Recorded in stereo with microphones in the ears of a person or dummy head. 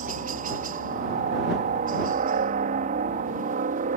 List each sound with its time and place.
0.0 s a helicopter: 45° right (ahead or behind)